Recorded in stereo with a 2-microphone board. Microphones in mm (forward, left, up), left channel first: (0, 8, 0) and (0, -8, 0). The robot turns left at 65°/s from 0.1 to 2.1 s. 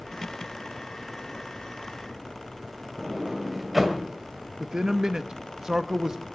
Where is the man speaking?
35° right (ahead or behind), 0.7 m.